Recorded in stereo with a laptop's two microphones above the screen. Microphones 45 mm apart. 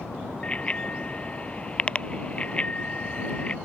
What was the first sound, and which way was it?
A bicycle bell, 25° left (ahead or behind).